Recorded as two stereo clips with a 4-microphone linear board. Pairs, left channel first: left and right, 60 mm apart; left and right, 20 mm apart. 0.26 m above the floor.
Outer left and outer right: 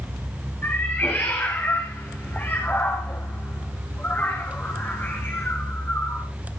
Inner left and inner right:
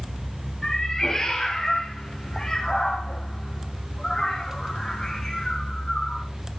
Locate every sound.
0.6 s a cat meowing: 35° left (ahead or behind), 5.5 m